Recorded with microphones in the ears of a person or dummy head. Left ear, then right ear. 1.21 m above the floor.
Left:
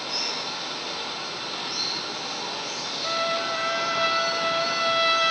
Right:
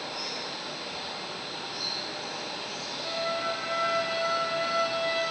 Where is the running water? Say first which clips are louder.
Left 6 dB; 55° left (ahead or behind), 8 m.